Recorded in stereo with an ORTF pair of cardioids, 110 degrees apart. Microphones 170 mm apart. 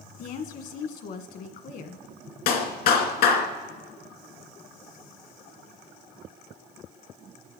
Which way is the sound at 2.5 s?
70° left.